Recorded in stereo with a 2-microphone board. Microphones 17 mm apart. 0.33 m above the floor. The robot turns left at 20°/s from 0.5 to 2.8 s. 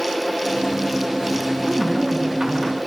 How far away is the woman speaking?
About 4 m.